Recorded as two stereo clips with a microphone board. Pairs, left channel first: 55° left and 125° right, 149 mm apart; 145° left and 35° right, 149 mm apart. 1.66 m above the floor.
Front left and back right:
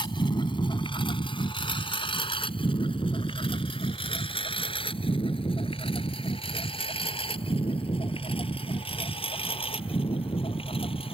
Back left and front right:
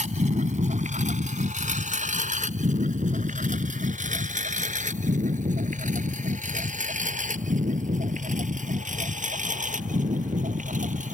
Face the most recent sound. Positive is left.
turn(degrees=0)